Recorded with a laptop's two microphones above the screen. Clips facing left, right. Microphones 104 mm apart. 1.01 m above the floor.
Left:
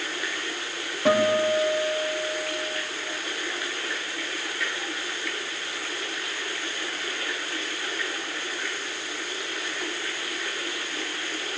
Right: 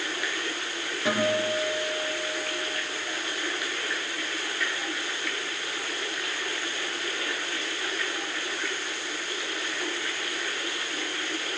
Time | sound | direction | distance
1.1 | a guitar | 65° left (ahead or behind) | 6 m